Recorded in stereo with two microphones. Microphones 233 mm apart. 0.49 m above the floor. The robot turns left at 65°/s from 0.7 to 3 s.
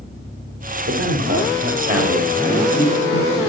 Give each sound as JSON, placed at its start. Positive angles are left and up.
{"t": 0.9, "sound": "a man speaking", "azimuth_deg": -90, "distance_m": 2.5}